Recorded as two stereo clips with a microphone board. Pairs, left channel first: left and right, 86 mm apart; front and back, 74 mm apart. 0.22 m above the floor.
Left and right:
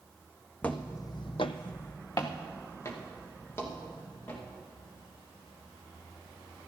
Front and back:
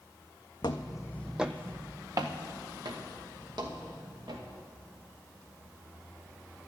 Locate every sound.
0.6 s footsteps: 15° left, 1.0 m; by 4.4 s 155° left, 4.5 m